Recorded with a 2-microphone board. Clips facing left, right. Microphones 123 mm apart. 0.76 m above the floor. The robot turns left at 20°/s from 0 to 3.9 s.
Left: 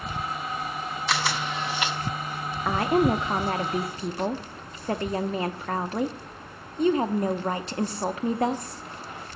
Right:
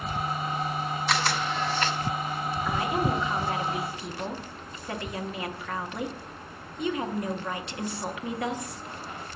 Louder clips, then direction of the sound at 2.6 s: Left 7 dB; 55° left (ahead or behind).